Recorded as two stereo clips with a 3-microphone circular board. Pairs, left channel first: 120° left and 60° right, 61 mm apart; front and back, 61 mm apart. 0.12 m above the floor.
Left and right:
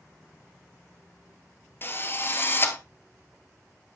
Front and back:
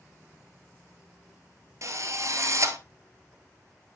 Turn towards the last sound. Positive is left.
turn(degrees=165)